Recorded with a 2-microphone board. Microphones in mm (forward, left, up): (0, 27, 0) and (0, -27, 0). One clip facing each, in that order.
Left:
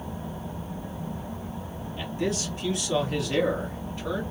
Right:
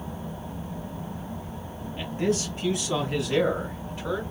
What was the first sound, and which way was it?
A man speaking, 30° right (ahead or behind).